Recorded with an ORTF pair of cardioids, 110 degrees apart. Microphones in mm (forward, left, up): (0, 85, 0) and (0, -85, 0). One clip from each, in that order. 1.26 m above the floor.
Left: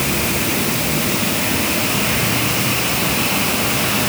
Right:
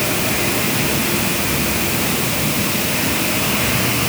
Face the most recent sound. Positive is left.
No sound to turn to.